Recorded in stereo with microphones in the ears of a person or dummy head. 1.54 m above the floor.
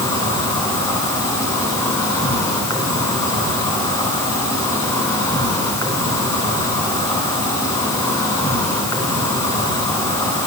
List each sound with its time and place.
0.0 s an insect: 20° left (ahead or behind), 8.5 m